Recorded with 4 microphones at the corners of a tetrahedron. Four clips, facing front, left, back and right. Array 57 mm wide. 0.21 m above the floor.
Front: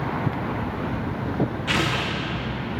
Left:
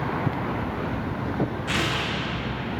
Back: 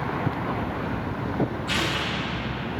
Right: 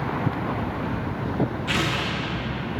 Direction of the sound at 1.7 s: 5° left.